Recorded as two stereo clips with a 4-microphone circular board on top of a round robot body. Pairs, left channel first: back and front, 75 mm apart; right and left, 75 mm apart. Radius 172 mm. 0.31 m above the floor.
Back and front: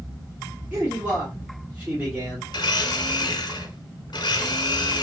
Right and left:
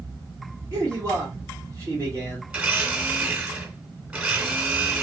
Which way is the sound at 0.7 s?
65° left.